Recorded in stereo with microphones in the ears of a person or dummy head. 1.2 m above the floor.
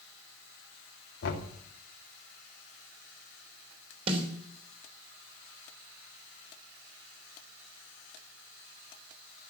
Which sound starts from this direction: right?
A snare drum, at 4.1 s.